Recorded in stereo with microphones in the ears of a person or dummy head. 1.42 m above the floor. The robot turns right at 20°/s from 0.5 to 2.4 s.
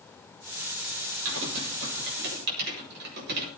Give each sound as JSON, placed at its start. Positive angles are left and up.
{"t": 1.2, "sound": "typing on a keyboard", "side_deg": -75, "distance_m": 7.0}